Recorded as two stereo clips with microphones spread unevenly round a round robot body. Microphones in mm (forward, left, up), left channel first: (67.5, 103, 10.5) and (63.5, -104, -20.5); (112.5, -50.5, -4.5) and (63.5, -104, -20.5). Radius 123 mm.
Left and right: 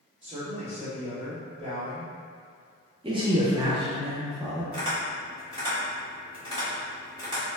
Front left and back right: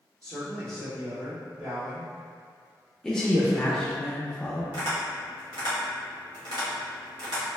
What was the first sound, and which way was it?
A man speaking, 155° right.